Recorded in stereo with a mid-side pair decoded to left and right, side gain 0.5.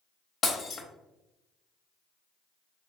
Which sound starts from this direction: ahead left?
Breaking glass, at 0.4 s.